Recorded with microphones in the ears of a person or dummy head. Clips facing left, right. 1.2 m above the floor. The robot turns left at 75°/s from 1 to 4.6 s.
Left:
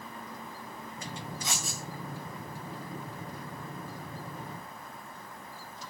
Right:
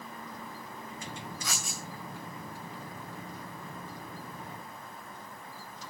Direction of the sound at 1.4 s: 25° left (ahead or behind).